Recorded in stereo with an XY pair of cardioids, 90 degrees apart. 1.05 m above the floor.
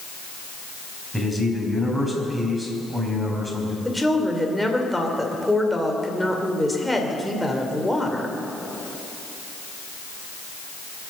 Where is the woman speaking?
Straight ahead, 3 m.